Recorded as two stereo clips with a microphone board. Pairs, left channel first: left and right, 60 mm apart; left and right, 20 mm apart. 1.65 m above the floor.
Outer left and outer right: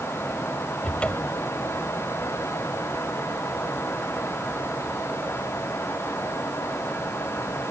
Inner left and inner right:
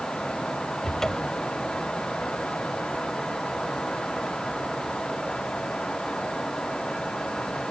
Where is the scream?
I don't hear a scream.